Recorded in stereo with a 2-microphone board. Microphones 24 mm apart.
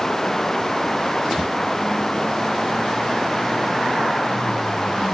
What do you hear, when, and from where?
0.0 s running water: 20° left (ahead or behind)